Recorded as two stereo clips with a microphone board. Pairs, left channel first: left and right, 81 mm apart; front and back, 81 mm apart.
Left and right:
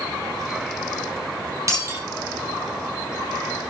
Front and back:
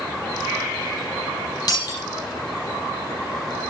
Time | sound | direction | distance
1.7 | breaking glass | 40° right | 8 m